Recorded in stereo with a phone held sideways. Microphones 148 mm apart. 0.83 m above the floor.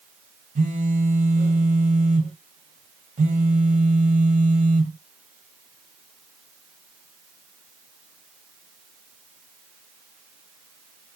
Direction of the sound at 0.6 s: 60° right (ahead or behind).